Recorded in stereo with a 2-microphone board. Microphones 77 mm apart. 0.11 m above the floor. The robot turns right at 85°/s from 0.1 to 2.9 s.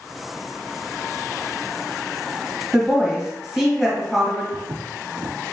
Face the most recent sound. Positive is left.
turn(degrees=-75)  # may be behind; listen again after turning